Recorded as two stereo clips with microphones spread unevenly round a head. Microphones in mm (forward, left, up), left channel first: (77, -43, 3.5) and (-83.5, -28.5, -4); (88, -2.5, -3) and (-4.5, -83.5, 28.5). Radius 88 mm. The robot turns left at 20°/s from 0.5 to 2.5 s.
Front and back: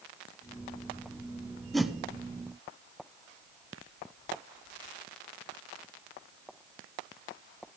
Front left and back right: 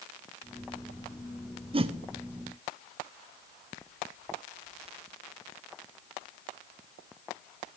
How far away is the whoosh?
About 0.6 m.